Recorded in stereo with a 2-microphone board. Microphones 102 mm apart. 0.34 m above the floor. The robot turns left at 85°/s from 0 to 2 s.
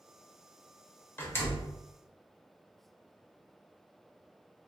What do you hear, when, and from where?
1.2 s a door slam: 25° left (ahead or behind), 0.7 m; by 1.8 s 20° left (ahead or behind), 0.7 m